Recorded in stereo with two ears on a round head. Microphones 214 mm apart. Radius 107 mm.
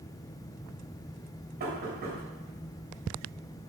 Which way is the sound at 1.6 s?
40° right (ahead or behind).